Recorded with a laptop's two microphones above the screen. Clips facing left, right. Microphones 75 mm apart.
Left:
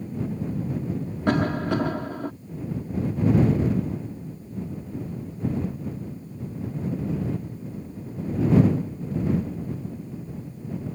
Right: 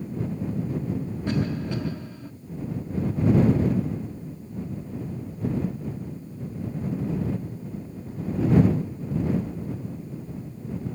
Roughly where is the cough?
Left.